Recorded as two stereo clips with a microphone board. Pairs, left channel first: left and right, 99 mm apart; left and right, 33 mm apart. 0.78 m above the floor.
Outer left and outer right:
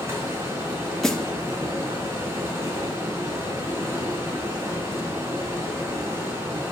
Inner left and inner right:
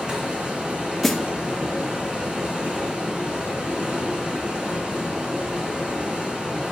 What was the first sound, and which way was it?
Running water, 30° right (ahead or behind).